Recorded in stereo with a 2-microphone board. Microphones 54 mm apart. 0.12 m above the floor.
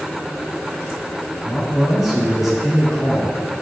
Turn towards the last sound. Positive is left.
turn(degrees=-5)  # may be behind; listen again after turning